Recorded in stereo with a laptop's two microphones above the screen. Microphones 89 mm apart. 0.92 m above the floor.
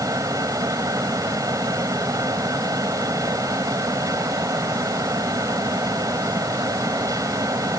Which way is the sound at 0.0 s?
45° right (ahead or behind).